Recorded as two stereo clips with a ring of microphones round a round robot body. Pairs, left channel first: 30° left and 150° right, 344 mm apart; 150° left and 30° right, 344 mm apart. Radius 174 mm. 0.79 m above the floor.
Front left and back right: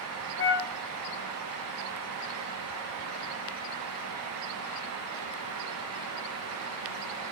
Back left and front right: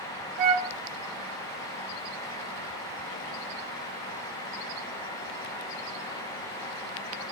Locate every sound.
0.4 s a flute: 30° right, 1.0 m